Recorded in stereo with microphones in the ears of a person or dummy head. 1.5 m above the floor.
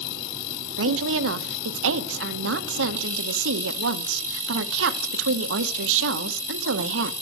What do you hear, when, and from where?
0.8 s a woman speaking: 65° right (ahead or behind), 0.9 m